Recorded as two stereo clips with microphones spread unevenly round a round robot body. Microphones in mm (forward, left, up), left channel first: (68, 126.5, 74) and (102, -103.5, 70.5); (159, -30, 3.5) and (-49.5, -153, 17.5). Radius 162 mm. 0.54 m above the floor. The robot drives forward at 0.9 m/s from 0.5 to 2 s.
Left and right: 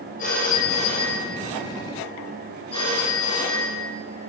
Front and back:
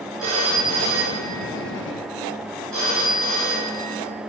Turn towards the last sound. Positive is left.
turn(degrees=170)